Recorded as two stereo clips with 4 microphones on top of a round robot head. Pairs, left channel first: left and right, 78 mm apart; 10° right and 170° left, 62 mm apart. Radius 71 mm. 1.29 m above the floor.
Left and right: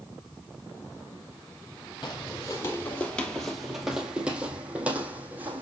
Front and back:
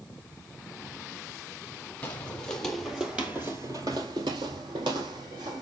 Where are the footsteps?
45° left, 1.6 m; by 5.6 s 160° right, 2.5 m.